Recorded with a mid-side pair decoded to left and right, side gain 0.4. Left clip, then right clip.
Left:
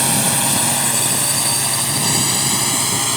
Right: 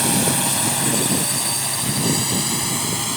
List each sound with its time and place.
0.0 s a drone: 25° left; by 3.2 s 45° left